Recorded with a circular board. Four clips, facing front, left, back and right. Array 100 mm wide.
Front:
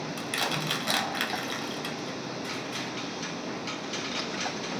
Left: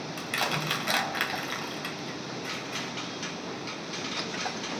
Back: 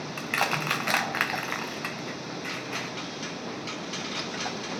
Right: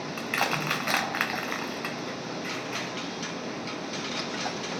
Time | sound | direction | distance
0.2 | crushing | 145° right | 0.6 m